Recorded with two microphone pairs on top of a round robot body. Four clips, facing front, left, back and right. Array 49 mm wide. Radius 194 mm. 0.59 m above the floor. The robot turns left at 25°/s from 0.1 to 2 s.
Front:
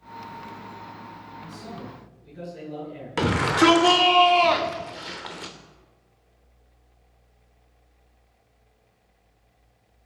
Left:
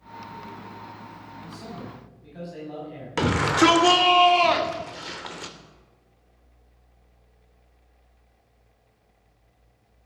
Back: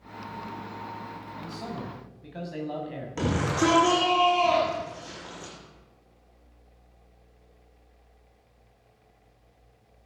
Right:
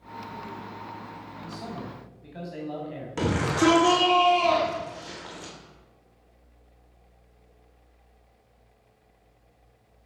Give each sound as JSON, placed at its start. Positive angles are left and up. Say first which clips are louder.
{"t": 1.4, "sound": "a man speaking", "louder": "right 2 dB, back 3 dB", "azimuth_deg": -145, "distance_m": 6.5}
{"t": 3.2, "sound": "a shout", "louder": "left 4 dB, front 6 dB", "azimuth_deg": 50, "distance_m": 3.5}